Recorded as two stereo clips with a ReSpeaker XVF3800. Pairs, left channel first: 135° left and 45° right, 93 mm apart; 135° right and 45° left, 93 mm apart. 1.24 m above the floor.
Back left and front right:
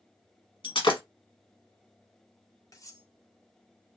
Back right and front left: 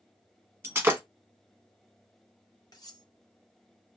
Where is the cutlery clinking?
175° right, 0.7 m.